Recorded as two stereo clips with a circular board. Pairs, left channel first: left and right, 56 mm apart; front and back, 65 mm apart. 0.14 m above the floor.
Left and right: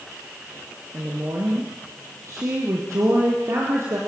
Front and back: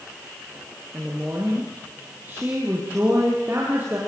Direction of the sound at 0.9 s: 120° right.